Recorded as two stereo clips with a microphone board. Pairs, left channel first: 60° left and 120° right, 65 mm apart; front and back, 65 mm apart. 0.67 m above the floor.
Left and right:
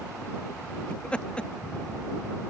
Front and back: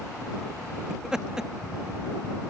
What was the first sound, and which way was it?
Laughter, 110° left.